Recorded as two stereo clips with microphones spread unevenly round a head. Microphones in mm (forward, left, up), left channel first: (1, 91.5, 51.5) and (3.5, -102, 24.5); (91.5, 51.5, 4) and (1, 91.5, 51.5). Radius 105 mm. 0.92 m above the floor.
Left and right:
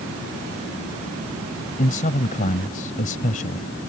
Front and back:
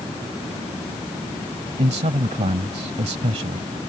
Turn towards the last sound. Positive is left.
turn(degrees=145)